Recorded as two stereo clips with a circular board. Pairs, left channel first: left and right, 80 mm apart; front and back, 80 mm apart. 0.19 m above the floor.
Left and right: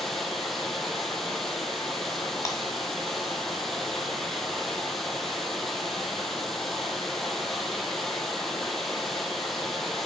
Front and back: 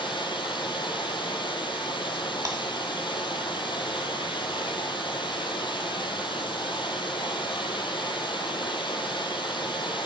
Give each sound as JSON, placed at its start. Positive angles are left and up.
{"t": 0.0, "sound": "running water", "azimuth_deg": 0, "distance_m": 0.8}
{"t": 2.5, "sound": "breaking glass", "azimuth_deg": 135, "distance_m": 1.6}